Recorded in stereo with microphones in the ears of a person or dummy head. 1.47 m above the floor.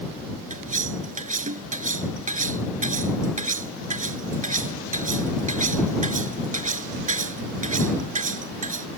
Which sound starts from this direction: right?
Cutlery clinking, at 0.5 s.